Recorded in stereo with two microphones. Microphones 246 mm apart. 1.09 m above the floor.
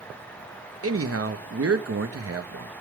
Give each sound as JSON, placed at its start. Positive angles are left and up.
{"t": 0.8, "sound": "a man speaking", "side_deg": -75, "distance_m": 0.9}